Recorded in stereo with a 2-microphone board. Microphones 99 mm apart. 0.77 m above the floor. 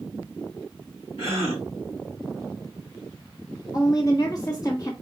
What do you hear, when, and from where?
1.2 s a gasp: 75° left (ahead or behind), 4 m
3.7 s a woman speaking: 40° left (ahead or behind), 1.2 m